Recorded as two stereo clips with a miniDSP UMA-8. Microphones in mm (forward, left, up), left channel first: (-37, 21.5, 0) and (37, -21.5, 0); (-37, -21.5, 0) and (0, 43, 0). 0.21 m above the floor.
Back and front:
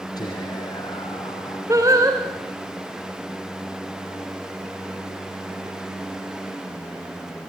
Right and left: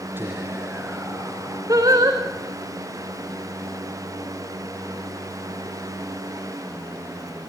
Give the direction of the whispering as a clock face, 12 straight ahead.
8 o'clock.